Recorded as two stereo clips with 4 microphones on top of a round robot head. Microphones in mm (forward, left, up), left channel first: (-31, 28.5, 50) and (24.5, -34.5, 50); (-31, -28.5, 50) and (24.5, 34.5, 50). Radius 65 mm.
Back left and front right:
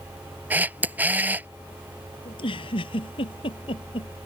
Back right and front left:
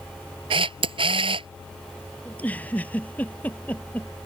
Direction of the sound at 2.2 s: 155° left.